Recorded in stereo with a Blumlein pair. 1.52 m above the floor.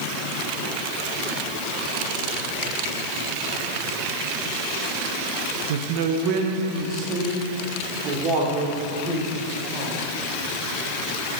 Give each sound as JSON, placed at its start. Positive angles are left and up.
{"t": 5.7, "sound": "a man speaking", "azimuth_deg": -55, "distance_m": 1.0}